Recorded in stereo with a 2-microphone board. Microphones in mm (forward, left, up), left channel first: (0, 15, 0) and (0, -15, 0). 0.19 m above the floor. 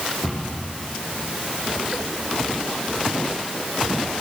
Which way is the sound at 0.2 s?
Centre (ahead or behind).